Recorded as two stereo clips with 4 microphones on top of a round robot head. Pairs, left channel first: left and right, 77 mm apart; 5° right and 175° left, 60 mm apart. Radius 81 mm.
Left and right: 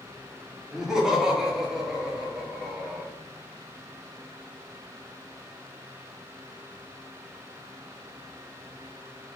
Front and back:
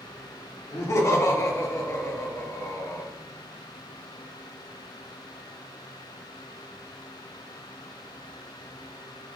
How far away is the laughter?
About 0.8 m.